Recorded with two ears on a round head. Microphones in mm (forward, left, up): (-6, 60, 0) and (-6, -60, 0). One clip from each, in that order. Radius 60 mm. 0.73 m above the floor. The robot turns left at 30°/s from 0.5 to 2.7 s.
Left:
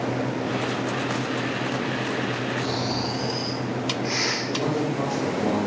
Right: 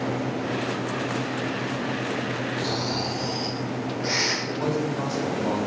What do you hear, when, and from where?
2.6 s snoring: 65° right (ahead or behind), 2 m
4.5 s a man speaking: 40° right (ahead or behind), 3 m